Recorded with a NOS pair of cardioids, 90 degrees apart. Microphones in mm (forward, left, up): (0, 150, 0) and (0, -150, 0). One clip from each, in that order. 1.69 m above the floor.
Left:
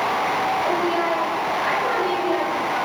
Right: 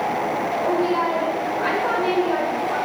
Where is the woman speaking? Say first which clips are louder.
Even; 40° right, 0.7 m.